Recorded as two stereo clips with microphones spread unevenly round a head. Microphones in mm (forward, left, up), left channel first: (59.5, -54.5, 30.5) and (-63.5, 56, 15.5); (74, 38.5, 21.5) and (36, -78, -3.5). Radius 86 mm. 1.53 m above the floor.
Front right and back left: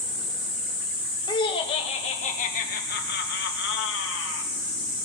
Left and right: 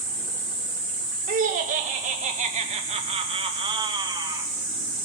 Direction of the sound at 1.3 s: 110° right.